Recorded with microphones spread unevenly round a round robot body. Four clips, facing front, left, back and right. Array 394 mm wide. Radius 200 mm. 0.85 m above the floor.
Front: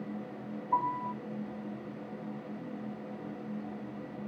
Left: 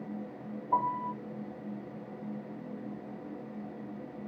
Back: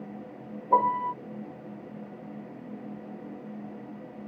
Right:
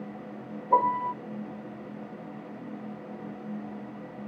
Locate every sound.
0.7 s a piano: 145° right